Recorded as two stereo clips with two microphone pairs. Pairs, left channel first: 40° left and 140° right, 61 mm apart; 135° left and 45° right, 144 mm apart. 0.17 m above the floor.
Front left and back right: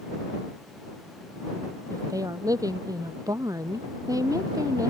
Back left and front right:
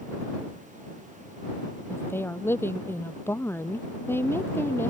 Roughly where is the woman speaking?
Behind right.